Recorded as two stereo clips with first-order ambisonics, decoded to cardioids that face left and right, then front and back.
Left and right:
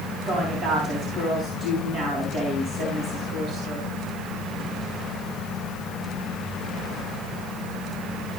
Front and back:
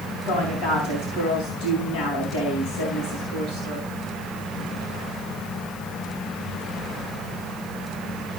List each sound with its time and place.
0.2 s a woman speaking: 30° right, 3.5 m